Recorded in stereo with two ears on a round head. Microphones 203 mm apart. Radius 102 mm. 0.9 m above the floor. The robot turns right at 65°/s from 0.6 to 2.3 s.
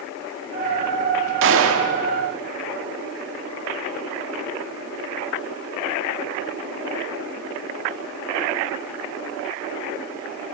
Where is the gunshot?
120° right, 2.0 m; by 1.9 s 85° right, 2.0 m.